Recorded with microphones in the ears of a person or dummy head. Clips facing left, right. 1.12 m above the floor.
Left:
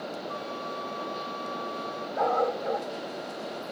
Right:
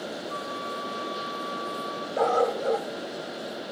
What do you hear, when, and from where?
0.3 s a flute: 45° left (ahead or behind), 4.5 m
2.2 s a dog barking: 50° right (ahead or behind), 1.6 m